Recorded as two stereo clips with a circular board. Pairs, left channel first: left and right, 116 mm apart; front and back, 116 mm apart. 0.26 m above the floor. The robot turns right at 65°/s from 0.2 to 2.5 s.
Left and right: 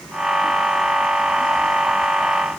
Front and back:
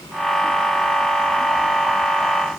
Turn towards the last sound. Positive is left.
No sound to turn to.